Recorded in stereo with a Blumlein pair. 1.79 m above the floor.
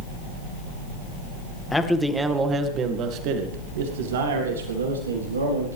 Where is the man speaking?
10° left, 2.5 m; by 5.8 s 75° right, 5 m.